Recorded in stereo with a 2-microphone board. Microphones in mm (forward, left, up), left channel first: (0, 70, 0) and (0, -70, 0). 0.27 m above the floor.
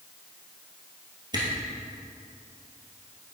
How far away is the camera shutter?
About 1.9 m.